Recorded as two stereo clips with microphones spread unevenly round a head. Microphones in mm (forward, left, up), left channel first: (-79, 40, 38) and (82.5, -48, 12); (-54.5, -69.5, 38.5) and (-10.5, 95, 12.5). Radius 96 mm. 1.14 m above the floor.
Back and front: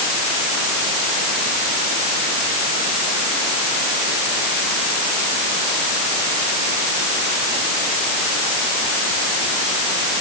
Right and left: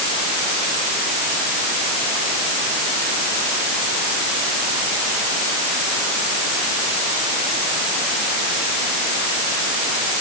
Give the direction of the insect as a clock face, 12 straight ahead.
I don't hear an insect.